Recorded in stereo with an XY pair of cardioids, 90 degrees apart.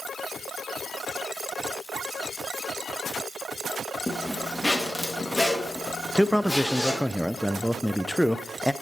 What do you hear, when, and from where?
4.1 s a zipper: 15° left, 1.9 m
6.2 s a man speaking: straight ahead, 0.5 m